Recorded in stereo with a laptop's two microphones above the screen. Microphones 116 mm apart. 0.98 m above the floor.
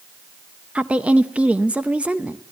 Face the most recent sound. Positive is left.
turn(degrees=-10)  # may be behind; listen again after turning